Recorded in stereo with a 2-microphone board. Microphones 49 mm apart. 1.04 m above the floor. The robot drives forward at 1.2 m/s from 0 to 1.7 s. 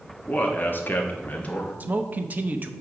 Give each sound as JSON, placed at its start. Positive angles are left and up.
{"t": 0.3, "sound": "a man speaking", "side_deg": 30, "distance_m": 1.1}
{"t": 1.8, "sound": "a man speaking", "side_deg": -35, "distance_m": 0.7}